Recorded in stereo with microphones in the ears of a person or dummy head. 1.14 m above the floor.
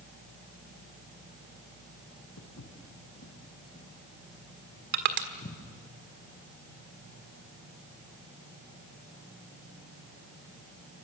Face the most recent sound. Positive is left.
turn(degrees=-50)  # may be behind; listen again after turning